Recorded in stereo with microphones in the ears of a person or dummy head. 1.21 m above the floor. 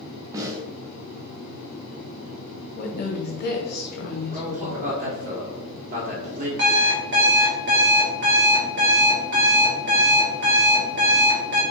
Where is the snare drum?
20° right (ahead or behind), 0.6 m.